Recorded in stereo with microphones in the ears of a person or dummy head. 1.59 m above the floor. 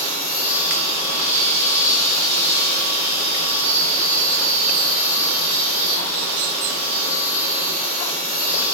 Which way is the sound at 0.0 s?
80° right.